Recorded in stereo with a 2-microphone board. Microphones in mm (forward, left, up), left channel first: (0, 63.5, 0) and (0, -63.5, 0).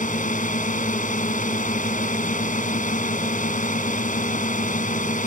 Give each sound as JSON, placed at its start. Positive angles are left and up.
{"t": 0.0, "sound": "a drone", "side_deg": 75}